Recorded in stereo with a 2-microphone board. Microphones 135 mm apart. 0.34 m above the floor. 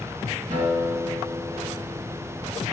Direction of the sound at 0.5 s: 65° right (ahead or behind).